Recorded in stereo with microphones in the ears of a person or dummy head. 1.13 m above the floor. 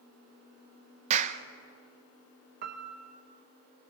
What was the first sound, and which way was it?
A clap, 40° right (ahead or behind).